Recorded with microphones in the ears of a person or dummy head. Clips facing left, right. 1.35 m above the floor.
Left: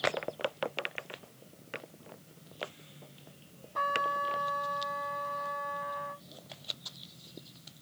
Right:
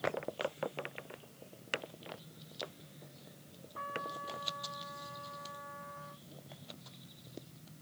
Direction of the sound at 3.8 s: 85° left.